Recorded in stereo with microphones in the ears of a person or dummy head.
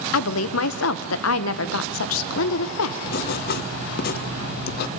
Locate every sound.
0.1 s a woman speaking: 80° left, 1.2 m
3.1 s writing: 60° left (ahead or behind), 1.1 m